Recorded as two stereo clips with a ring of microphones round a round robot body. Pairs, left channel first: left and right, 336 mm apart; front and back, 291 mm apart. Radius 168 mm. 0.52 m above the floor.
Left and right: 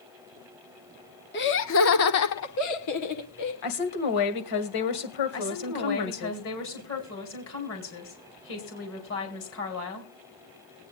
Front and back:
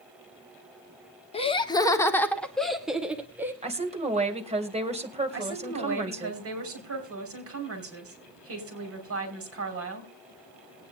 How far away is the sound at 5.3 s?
About 4.5 m.